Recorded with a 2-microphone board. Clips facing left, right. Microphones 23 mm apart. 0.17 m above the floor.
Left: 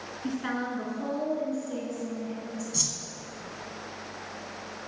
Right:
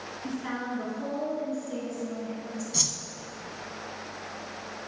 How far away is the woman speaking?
About 1.6 m.